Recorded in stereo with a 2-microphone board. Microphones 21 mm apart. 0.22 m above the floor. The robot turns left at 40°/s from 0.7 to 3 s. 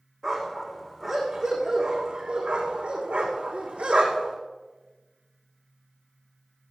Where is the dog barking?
10° left (ahead or behind), 5 m; by 4.4 s 80° right, 5 m.